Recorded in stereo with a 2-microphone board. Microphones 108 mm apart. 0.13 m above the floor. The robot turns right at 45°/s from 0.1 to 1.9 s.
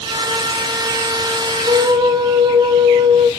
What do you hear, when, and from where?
1.7 s a flute: 40° right (ahead or behind), 0.6 m; by 3.3 s 45° right (ahead or behind), 0.6 m